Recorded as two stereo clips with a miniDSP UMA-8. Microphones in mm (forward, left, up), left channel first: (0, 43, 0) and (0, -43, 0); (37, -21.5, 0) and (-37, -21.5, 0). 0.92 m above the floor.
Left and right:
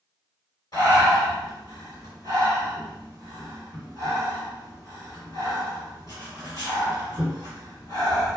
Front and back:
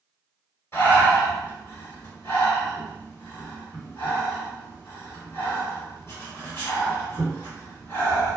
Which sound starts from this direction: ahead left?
Breathing, at 0.7 s.